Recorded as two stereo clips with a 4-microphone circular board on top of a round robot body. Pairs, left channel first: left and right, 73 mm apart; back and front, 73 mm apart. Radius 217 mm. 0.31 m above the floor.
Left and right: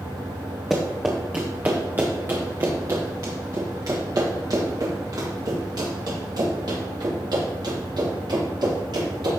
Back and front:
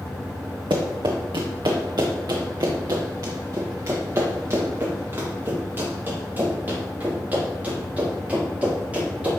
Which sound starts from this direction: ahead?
Running footsteps, at 0.7 s.